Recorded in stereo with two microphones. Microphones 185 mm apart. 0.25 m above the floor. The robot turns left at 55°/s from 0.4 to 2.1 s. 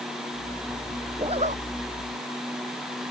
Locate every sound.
1.2 s a zipper: 25° right (ahead or behind); by 1.6 s 50° right (ahead or behind)